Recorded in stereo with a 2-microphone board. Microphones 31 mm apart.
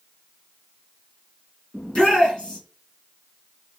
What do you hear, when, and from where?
1.7 s a shout: 35° left (ahead or behind), 1.9 m